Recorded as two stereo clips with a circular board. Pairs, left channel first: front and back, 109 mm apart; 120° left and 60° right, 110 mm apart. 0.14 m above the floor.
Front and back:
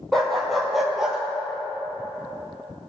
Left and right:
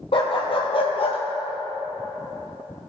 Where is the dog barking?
85° left, 2 m; by 1.2 s 95° left, 1.4 m.